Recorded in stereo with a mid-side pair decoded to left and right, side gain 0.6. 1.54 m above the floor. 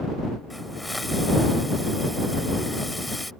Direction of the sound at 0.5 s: 5° left.